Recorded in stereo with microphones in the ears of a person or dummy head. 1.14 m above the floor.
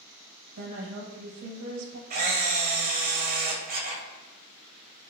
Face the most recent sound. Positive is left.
turn(degrees=-45)  # may be behind; listen again after turning